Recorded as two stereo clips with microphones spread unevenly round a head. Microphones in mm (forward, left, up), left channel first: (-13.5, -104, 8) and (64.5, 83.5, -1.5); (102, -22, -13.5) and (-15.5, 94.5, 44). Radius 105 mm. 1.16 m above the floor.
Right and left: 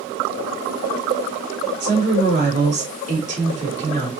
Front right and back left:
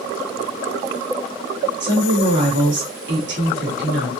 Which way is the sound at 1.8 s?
125° left.